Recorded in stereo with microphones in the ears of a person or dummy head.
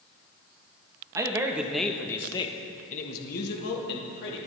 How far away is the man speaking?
About 1.6 m.